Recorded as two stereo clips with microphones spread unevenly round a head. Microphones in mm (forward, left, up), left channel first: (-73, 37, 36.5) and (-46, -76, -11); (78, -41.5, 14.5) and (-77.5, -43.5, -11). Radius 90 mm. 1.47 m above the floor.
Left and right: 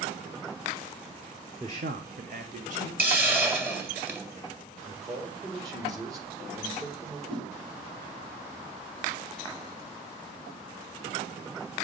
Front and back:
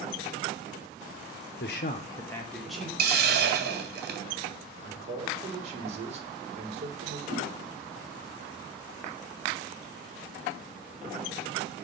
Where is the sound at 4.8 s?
135° right, 3 m.